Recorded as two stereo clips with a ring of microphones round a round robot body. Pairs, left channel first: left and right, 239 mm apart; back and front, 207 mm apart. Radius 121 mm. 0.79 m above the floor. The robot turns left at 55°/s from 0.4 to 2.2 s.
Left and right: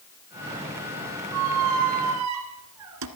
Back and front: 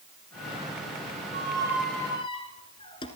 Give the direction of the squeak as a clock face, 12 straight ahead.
2 o'clock.